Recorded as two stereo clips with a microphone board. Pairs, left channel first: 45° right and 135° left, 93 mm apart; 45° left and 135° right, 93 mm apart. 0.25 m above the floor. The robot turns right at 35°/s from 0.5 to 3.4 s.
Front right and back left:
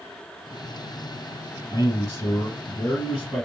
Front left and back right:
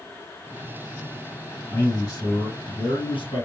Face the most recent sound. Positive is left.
turn(degrees=45)